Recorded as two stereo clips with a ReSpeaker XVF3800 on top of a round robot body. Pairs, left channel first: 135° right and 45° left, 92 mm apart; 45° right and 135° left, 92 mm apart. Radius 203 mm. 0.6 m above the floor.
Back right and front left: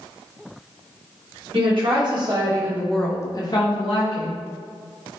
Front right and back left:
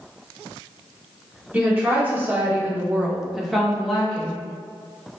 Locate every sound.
1.5 s a woman speaking: 65° left, 1.4 m; by 4.4 s 130° right, 1.4 m